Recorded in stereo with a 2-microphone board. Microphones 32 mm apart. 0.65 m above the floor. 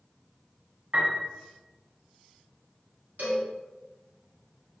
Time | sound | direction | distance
0.9 | a piano | 50° right (ahead or behind) | 1.0 m
3.2 | a cowbell | 55° right (ahead or behind) | 0.9 m